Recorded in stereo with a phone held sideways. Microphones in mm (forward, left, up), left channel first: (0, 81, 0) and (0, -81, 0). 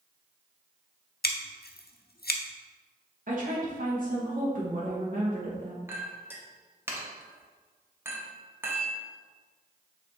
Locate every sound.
1.2 s scissors: 75° left (ahead or behind), 0.7 m
3.3 s a woman speaking: 55° right (ahead or behind), 1.3 m
5.9 s a clink: 15° right (ahead or behind), 1.0 m